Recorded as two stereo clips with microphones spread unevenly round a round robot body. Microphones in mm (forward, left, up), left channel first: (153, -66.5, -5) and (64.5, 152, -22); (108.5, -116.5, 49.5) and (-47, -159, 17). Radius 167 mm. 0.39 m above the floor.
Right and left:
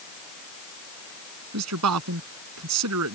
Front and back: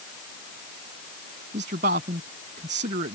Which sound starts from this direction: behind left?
A man speaking, at 1.5 s.